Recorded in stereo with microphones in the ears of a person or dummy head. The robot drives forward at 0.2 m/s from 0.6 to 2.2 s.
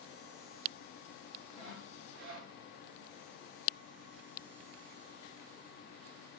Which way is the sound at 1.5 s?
80° right.